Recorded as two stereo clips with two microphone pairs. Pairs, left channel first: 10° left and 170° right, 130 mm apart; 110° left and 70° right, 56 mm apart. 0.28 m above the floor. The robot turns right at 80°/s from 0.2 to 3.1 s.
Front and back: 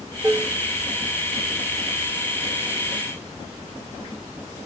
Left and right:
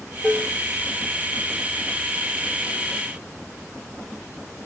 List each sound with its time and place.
0.2 s dishes clattering: 175° left, 0.6 m; by 0.5 s 160° right, 0.6 m